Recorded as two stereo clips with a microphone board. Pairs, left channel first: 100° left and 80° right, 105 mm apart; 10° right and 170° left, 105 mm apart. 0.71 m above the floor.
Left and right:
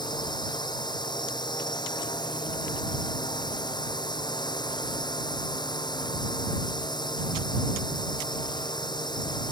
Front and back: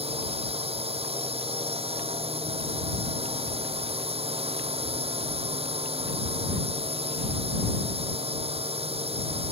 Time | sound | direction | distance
0.0 | a drone | 150° left | ?